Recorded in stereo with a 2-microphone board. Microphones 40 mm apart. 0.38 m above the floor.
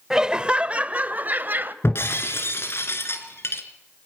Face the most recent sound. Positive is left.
turn(degrees=70)  # may be behind; listen again after turning